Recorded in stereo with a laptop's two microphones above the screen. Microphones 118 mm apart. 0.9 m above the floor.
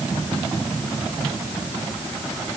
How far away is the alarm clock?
No alarm clock in this recording.